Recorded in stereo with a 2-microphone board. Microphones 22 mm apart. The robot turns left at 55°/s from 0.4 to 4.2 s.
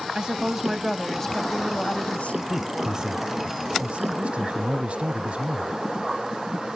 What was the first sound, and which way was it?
A woman speaking, 145° right.